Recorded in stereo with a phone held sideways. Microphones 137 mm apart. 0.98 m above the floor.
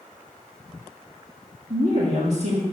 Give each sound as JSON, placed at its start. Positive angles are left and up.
{"t": 1.7, "sound": "a woman speaking", "side_deg": -55, "distance_m": 1.6}